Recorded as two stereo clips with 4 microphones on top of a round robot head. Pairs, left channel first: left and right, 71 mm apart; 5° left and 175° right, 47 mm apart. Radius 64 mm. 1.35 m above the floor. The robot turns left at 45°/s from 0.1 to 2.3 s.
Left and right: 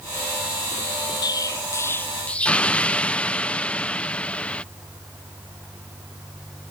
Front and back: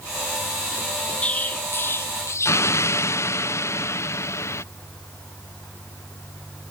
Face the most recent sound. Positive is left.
turn(degrees=15)